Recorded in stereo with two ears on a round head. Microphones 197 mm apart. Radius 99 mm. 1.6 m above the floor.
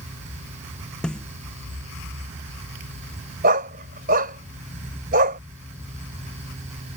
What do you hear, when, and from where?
1.0 s a snare drum: 5° left (ahead or behind)
3.4 s a dog barking: 40° right (ahead or behind)